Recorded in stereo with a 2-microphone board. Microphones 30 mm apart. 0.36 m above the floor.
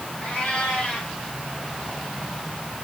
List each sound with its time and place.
0.2 s a cat meowing: 35° left (ahead or behind), 6.5 m